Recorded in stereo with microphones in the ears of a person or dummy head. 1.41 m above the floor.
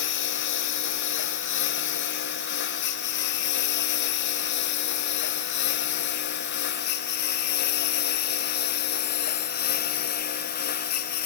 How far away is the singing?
I don't hear singing.